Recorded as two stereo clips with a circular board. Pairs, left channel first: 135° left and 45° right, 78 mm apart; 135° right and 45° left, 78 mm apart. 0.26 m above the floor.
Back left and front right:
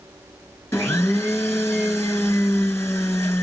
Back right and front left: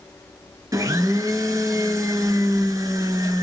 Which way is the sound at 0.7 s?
75° left.